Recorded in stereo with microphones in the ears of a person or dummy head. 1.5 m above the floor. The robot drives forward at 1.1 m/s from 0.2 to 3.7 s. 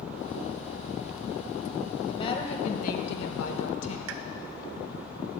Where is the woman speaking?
30° left (ahead or behind), 1.8 m; by 4.0 s 75° left (ahead or behind), 1.0 m.